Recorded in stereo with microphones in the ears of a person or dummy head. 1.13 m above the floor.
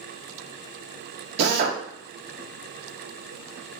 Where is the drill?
60° right (ahead or behind), 1.0 m.